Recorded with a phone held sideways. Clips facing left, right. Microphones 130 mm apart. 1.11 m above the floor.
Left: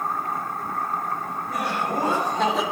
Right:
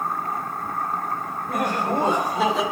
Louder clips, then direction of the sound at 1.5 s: Right 3 dB; 55° right (ahead or behind).